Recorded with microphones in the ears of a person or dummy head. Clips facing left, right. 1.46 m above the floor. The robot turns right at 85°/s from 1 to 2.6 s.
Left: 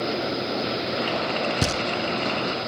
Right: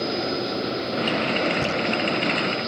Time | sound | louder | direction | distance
1.6 | knocking | right 1 dB | 60° left (ahead or behind) | ?